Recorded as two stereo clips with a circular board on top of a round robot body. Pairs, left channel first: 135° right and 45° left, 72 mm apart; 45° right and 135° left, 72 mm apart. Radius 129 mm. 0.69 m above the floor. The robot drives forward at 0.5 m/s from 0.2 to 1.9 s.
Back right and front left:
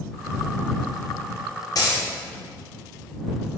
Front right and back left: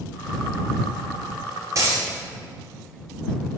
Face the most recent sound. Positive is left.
turn(degrees=-175)